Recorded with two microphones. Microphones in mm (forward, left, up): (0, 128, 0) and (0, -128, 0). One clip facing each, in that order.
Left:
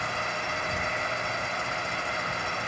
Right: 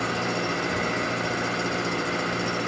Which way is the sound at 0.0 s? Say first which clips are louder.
Right 9 dB; 80° right.